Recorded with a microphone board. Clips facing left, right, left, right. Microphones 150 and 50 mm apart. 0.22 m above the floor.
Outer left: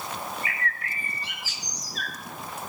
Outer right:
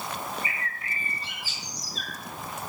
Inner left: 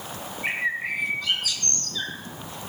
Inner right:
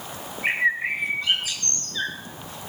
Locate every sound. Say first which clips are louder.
0.4 s a bird: outer left 3 dB, inner right 4 dB; 30° right (ahead or behind), 2.5 m